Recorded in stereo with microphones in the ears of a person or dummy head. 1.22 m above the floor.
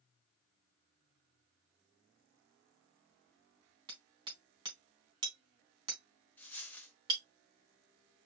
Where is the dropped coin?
5° left (ahead or behind), 0.8 m.